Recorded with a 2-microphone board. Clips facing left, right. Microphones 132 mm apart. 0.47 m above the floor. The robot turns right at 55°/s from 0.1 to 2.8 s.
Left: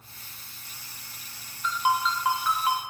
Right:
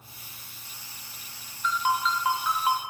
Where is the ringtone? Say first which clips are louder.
Left 1 dB; 150° left, 0.5 m; by 2.8 s 145° right, 0.5 m.